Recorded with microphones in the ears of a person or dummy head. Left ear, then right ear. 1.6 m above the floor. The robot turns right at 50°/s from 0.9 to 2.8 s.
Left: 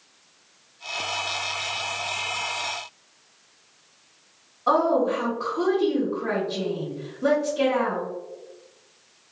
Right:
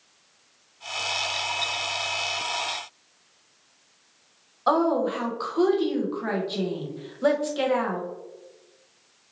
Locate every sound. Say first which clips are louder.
4.7 s a woman speaking: left 2 dB; 35° right (ahead or behind), 0.8 m